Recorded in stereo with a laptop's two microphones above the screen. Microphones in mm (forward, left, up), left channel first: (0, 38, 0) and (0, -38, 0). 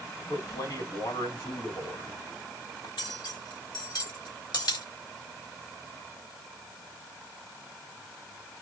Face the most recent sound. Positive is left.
turn(degrees=70)  # may be behind; listen again after turning